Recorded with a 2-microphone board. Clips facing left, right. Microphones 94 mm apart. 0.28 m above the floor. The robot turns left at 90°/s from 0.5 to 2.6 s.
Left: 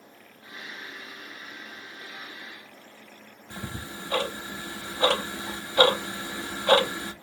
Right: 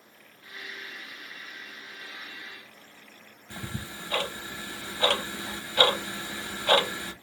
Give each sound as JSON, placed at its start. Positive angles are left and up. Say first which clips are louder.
{"t": 3.5, "sound": "ticking", "louder": "left 1 dB", "side_deg": 20, "distance_m": 0.8}